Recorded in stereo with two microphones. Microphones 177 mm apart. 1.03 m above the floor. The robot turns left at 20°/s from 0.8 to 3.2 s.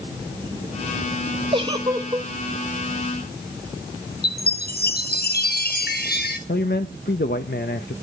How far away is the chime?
About 1.0 m.